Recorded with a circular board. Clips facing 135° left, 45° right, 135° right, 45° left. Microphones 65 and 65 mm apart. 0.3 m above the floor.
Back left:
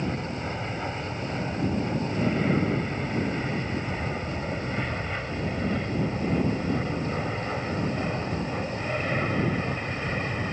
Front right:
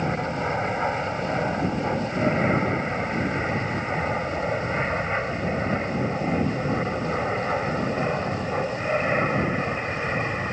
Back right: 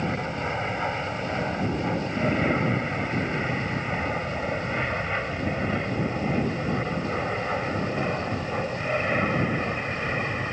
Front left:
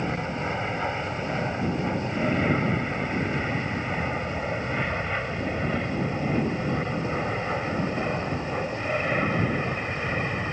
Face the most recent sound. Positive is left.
turn(degrees=-55)